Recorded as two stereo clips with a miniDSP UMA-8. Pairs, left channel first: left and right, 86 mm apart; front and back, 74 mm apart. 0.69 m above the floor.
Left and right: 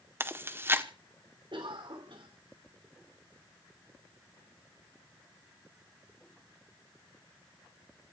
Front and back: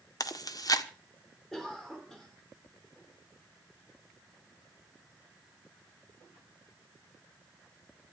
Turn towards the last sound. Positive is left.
turn(degrees=-85)